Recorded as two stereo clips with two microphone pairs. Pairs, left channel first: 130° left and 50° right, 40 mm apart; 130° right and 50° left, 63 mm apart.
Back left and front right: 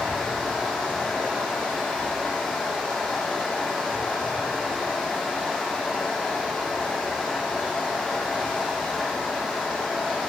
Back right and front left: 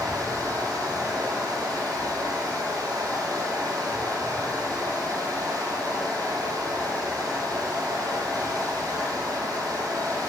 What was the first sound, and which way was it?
Running water, 40° left.